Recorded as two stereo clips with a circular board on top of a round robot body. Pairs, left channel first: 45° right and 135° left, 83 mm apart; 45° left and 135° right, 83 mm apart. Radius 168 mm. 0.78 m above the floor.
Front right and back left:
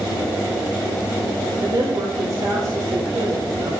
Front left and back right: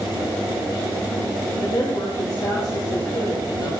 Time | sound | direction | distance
1.6 | a woman speaking | 100° left | 3.5 m